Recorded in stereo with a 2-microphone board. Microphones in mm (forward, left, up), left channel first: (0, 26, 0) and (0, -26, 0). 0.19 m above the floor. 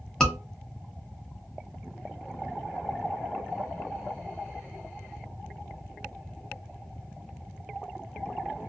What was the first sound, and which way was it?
A scream, 10° left (ahead or behind).